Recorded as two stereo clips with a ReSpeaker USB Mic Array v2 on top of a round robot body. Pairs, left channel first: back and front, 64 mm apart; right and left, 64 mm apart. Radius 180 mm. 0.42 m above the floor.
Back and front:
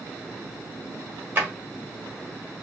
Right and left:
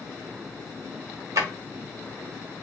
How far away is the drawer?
About 1.1 m.